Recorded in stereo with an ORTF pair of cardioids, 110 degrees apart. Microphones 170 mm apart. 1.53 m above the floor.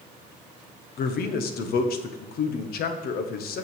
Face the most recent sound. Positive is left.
turn(degrees=65)